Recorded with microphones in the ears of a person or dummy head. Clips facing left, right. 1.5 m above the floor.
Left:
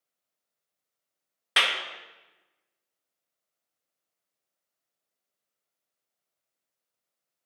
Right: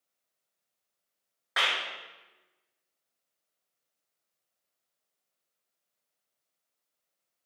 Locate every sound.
1.6 s a clap: 45° left (ahead or behind), 0.8 m